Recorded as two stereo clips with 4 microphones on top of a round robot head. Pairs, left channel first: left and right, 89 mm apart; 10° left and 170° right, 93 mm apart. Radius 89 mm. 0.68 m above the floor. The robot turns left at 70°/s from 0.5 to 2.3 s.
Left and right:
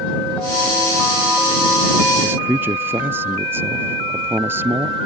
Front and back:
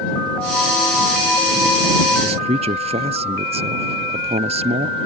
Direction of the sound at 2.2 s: 155° right.